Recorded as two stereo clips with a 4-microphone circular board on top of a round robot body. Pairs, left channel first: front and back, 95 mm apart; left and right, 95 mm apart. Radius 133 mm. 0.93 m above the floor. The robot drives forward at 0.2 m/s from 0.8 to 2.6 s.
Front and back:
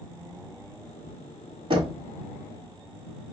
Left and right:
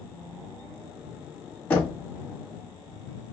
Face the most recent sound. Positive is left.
turn(degrees=160)